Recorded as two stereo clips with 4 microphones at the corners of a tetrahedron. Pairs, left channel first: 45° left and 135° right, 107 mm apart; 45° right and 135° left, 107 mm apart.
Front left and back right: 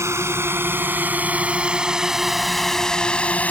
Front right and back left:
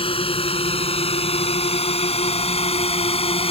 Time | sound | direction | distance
0.0 | a drone | 70° right | ?